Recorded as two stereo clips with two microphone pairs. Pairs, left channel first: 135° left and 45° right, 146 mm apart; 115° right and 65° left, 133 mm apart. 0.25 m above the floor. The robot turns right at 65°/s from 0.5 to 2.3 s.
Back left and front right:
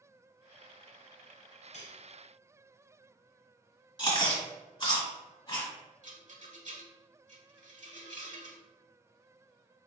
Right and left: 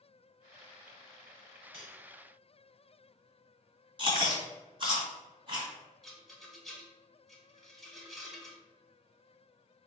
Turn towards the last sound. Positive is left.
turn(degrees=-25)